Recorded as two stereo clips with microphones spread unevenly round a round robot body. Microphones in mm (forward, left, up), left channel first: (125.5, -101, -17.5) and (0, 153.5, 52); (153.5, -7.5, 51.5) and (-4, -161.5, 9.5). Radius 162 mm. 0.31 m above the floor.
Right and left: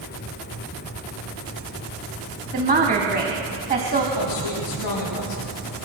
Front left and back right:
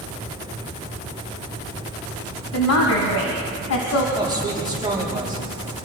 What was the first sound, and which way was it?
A woman speaking, 50° left.